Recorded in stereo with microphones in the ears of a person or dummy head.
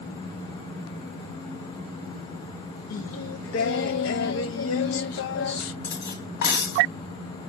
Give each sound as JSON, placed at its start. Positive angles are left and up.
{"t": 2.9, "sound": "singing", "side_deg": 70, "distance_m": 0.6}
{"t": 5.8, "sound": "cutlery clinking", "side_deg": 65, "distance_m": 1.4}